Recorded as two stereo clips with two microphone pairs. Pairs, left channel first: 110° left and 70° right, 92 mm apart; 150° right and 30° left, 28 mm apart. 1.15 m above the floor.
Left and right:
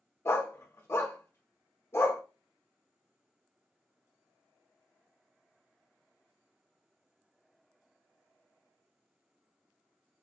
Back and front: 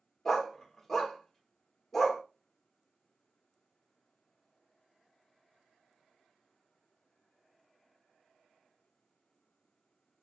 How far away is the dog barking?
About 0.8 m.